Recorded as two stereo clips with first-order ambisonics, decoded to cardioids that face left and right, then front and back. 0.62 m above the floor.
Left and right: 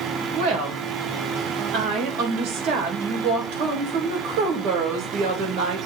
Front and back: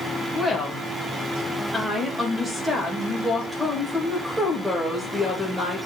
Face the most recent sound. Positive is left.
turn(degrees=-100)